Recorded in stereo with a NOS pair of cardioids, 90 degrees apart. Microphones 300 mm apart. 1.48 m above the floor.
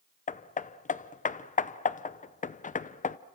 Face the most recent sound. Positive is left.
turn(degrees=25)